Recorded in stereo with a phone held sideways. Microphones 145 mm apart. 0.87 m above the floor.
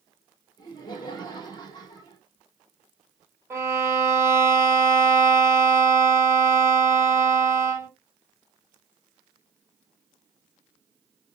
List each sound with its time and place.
0.6 s laughter: 30° left (ahead or behind), 2.5 m
3.5 s a violin: 15° right (ahead or behind), 1.4 m